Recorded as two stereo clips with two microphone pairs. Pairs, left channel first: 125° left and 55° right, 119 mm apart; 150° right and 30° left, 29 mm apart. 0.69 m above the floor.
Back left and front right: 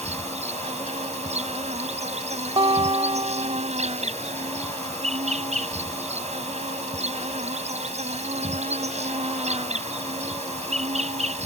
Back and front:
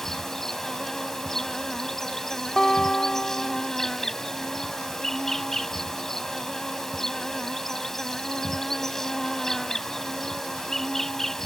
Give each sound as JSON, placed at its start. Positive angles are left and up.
{"t": 0.0, "sound": "an insect", "azimuth_deg": -75}
{"t": 2.6, "sound": "a guitar", "azimuth_deg": -90}